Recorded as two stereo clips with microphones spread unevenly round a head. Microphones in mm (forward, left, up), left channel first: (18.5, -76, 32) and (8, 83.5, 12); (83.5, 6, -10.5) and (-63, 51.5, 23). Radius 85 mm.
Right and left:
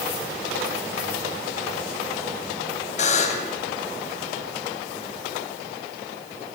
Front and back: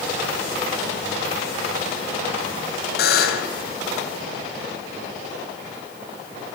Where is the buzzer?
40° right, 2.5 m.